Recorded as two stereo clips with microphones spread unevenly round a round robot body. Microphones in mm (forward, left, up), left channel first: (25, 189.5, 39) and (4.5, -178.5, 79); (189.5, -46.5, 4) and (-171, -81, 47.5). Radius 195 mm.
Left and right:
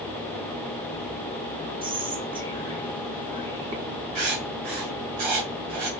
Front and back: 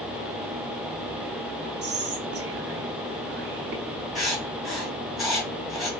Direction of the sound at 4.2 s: 85° right.